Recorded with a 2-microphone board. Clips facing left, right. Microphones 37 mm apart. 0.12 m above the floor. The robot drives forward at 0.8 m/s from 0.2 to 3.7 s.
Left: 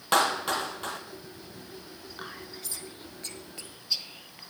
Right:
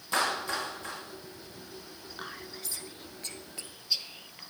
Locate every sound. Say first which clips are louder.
0.1 s a clap: left 5 dB; 65° left (ahead or behind), 3 m; by 1.0 s 70° left (ahead or behind), 3 m
2.2 s whispering: even; centre (ahead or behind), 1.1 m